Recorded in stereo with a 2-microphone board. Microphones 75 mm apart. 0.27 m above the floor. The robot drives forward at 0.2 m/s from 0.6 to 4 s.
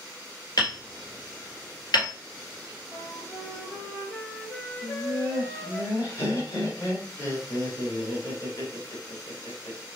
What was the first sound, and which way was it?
Hammering, 60° left (ahead or behind).